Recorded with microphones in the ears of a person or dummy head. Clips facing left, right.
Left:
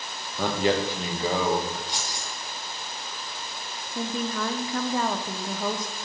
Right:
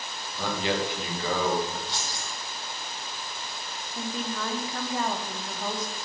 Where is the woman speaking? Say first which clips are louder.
Left 4 dB; 60° left (ahead or behind), 1.1 m.